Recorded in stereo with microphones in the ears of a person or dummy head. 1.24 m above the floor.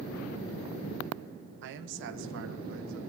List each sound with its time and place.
1.6 s a man speaking: 60° right (ahead or behind), 1.3 m; by 3.0 s 70° right (ahead or behind), 2 m